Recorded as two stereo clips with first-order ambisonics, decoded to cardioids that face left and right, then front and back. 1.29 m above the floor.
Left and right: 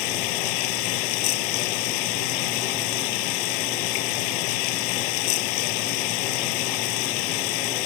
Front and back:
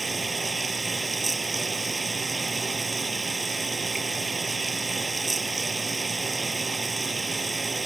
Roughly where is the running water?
Left.